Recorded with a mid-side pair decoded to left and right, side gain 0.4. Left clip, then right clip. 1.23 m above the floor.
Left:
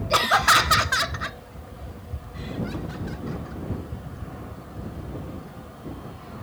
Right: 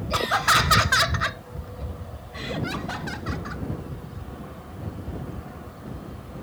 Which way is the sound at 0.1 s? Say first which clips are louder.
Left 3 dB; 45° left.